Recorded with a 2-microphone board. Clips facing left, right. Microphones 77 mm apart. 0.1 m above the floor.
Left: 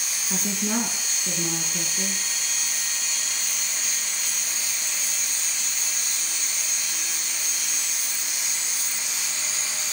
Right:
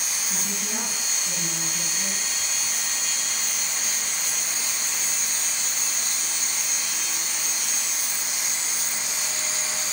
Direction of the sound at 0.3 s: 70° left (ahead or behind).